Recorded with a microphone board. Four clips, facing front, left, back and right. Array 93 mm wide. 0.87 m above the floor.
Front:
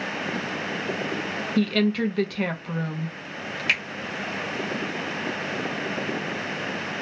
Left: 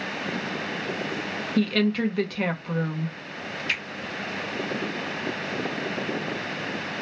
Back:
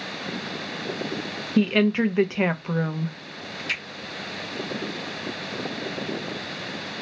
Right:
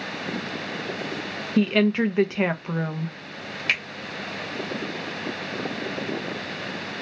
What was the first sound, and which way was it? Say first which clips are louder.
A woman speaking: right 3 dB, back 2 dB; 145° right.